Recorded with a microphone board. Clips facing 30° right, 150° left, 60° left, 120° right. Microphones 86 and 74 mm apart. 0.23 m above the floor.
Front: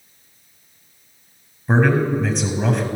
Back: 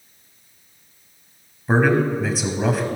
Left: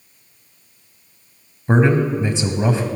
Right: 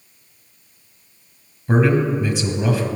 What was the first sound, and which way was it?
A man speaking, 70° left.